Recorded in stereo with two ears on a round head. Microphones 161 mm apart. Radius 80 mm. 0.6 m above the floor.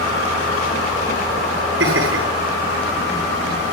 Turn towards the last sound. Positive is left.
turn(degrees=-75)  # may be behind; listen again after turning